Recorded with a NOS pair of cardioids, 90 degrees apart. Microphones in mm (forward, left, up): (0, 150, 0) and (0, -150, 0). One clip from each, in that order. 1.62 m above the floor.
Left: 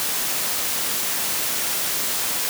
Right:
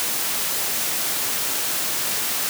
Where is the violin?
No violin in this recording.